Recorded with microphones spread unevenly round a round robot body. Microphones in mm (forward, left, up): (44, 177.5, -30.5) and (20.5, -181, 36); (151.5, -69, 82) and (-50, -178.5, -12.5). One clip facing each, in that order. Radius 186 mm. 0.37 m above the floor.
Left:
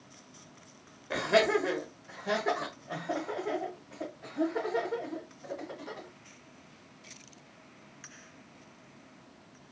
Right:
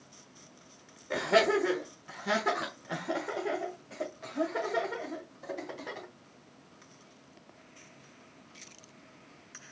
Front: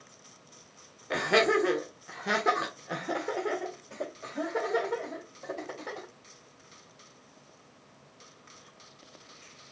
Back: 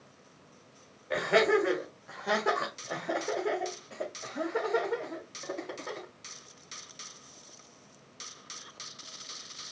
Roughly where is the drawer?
I don't hear a drawer.